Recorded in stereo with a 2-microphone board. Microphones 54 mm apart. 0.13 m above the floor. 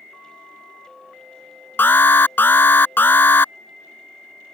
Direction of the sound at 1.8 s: 40° left (ahead or behind).